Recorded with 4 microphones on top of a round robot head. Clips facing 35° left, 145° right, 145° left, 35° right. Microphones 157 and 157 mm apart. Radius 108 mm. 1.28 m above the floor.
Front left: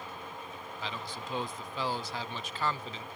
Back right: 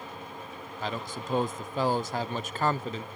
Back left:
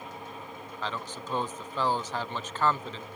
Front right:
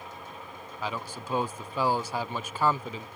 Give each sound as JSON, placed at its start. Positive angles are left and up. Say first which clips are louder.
{"t": 0.8, "sound": "a man speaking", "louder": "back right 7 dB, front right 1 dB", "azimuth_deg": -115}